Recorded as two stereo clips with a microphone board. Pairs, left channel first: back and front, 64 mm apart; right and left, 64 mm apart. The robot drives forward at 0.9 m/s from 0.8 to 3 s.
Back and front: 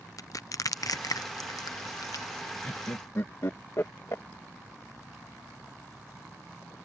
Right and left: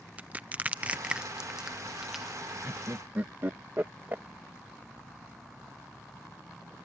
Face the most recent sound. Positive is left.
turn(degrees=140)